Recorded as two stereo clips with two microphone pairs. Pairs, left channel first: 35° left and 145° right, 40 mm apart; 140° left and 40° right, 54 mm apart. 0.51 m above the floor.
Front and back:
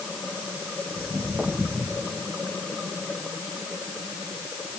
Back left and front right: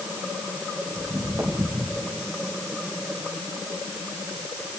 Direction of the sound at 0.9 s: 65° right.